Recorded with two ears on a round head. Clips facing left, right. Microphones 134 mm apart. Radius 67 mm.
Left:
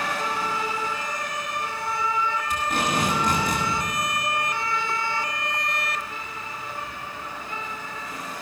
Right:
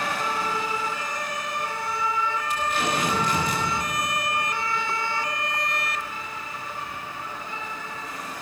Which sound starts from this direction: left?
Tape being pulled, at 2.5 s.